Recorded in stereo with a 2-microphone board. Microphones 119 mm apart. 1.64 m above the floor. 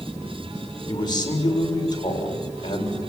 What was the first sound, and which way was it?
A man speaking, 40° left (ahead or behind).